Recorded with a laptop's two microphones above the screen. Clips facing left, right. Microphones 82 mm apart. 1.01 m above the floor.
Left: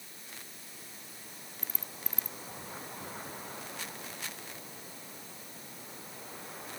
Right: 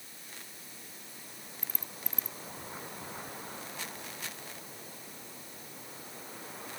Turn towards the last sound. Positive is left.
No sound to turn to.